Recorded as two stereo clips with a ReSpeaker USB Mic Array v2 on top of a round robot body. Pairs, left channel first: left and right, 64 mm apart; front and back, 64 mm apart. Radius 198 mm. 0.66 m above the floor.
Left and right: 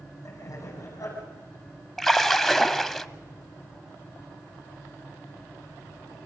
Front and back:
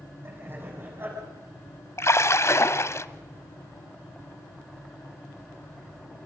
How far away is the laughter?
About 8.5 m.